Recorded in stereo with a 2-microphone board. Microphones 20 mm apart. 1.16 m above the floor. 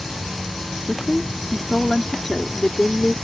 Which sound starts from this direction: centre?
A woman speaking, at 0.9 s.